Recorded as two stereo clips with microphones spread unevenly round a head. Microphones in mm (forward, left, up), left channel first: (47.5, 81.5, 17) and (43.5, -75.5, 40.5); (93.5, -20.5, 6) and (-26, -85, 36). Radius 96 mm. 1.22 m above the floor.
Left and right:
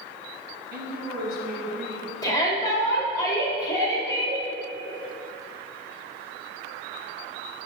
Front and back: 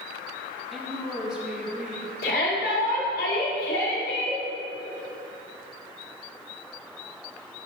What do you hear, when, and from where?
0.7 s a woman speaking: 55° right, 1.6 m; by 2.1 s 65° right, 3 m
2.2 s a shout: 20° left, 3 m